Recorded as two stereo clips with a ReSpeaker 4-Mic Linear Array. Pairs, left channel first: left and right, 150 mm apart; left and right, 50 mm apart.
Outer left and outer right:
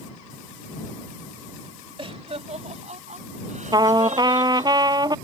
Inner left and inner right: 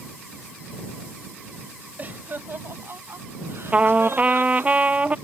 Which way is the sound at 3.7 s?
30° right (ahead or behind).